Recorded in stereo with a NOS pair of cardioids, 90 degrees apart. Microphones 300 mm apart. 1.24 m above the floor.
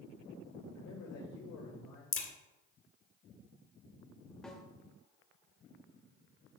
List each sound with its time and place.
0.7 s a man speaking: 65° left, 2.5 m
2.1 s a crack: 45° left, 1.6 m
4.4 s a snare drum: straight ahead, 1.2 m